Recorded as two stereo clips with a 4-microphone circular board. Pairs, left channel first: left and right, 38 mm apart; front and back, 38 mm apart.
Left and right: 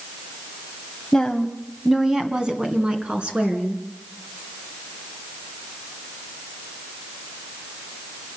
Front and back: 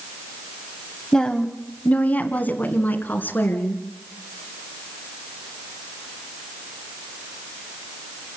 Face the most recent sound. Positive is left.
turn(degrees=-35)